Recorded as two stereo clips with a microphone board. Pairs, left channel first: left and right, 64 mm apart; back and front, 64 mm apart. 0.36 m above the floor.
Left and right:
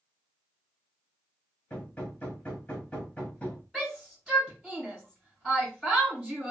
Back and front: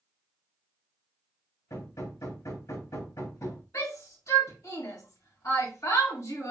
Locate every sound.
1.7 s hammering: 160° left, 1.3 m
3.7 s a shout: 175° left, 2 m